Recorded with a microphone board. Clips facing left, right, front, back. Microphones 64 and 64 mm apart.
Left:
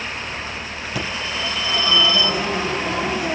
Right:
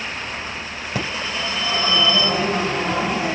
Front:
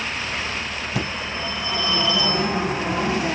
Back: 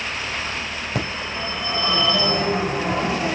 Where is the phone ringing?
150° right, 4 m.